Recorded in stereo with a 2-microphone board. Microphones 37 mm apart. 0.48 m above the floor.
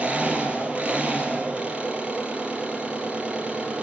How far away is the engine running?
About 4.5 m.